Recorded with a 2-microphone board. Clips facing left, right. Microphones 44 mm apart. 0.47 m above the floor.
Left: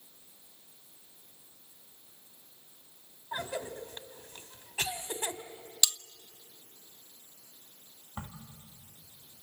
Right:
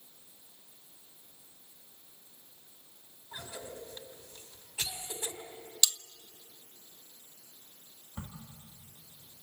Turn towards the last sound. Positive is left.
turn(degrees=30)  # may be behind; listen again after turning